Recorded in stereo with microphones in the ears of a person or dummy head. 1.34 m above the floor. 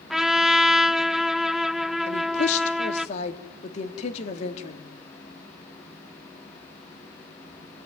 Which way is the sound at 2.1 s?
40° left (ahead or behind).